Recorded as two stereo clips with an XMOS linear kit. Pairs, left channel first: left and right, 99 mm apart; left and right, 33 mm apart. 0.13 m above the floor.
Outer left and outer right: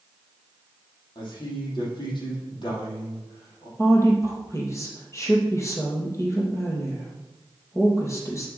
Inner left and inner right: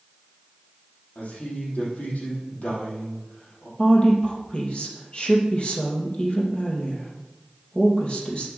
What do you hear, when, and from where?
1.1 s a man speaking: 55° left (ahead or behind), 5 m
3.8 s a woman speaking: 30° left (ahead or behind), 3.5 m